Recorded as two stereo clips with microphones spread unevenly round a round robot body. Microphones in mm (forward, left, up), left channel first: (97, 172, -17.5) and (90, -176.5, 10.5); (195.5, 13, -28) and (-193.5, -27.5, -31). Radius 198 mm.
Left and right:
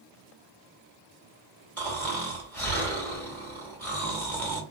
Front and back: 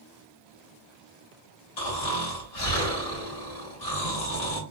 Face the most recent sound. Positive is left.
turn(degrees=10)